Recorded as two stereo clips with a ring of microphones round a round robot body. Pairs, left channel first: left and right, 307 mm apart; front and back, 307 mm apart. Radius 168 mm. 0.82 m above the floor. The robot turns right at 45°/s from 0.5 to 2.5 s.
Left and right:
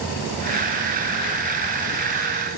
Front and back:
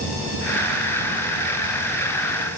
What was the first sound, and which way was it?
Only background noise.